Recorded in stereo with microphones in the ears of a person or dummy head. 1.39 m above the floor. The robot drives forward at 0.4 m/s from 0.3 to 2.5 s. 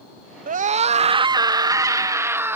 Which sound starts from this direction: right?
A scream, at 0.5 s.